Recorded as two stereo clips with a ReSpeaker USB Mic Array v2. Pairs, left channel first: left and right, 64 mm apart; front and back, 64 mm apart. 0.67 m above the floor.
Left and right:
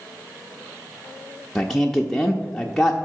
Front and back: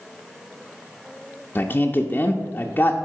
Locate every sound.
1.6 s a man speaking: 10° left, 0.5 m